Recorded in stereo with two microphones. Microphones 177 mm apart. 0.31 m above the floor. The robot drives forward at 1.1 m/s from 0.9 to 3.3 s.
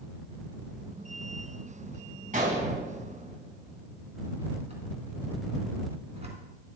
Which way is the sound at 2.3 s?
50° right (ahead or behind).